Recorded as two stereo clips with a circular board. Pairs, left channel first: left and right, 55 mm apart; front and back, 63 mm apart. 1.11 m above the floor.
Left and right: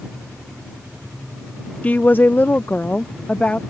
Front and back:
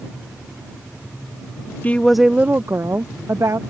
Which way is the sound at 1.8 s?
45° left.